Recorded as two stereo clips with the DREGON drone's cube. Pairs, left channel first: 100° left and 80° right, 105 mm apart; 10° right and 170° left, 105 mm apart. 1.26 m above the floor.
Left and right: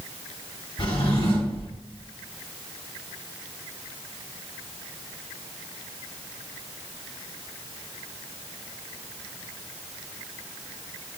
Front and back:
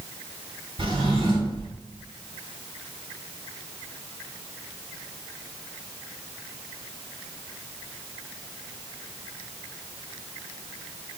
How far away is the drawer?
About 2.5 m.